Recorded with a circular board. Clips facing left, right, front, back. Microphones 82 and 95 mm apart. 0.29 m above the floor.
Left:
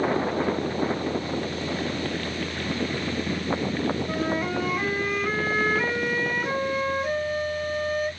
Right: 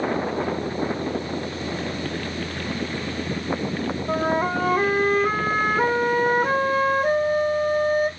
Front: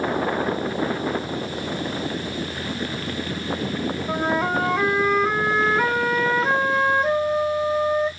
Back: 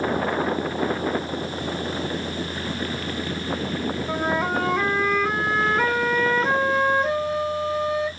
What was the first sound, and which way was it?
A flute, 85° right.